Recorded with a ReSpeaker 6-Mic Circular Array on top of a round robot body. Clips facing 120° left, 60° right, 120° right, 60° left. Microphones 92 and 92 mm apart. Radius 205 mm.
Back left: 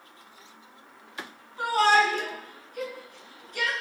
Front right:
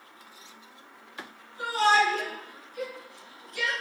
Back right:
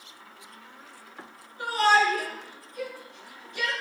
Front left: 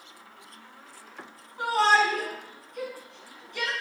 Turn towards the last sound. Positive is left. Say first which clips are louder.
# back left 2 dB, even
turn(degrees=80)